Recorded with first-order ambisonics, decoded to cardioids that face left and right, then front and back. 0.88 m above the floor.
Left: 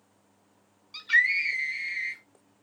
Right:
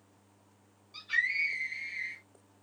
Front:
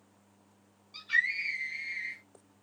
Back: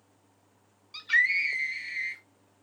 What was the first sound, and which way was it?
A scream, 125° left.